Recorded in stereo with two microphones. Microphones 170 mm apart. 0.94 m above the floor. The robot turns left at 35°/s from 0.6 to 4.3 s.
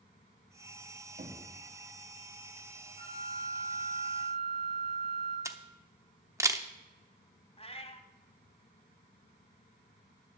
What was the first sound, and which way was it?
Knocking, 55° right (ahead or behind).